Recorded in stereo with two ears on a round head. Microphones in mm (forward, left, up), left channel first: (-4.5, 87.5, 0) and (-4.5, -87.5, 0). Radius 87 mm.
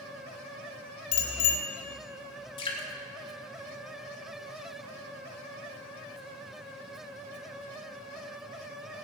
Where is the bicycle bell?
80° left, 3.5 m.